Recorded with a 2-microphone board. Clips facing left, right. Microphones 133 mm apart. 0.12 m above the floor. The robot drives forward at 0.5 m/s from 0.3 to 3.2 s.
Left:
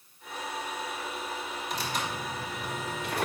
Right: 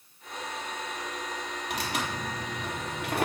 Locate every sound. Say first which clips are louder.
1.7 s tearing paper: right 1 dB; 70° right (ahead or behind), 3.5 m; by 3.3 s 65° right (ahead or behind), 3.5 m